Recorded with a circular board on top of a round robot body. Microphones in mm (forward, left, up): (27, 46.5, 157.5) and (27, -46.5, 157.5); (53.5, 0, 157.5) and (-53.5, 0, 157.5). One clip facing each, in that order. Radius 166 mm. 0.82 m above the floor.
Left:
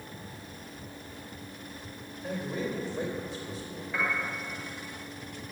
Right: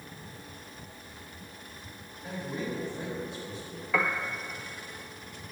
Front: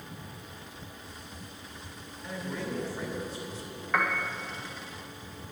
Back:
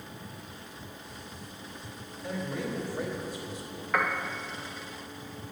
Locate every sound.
2.2 s a man speaking: 105° left, 3.5 m
3.9 s a piano: 90° right, 0.7 m